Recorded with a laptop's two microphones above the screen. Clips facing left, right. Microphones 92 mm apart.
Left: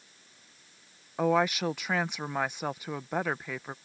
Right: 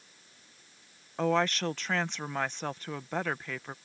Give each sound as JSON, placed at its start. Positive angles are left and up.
{"t": 1.2, "sound": "a woman speaking", "side_deg": 10}